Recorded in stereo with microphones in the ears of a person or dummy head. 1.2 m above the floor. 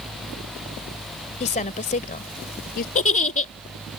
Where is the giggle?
30° left (ahead or behind).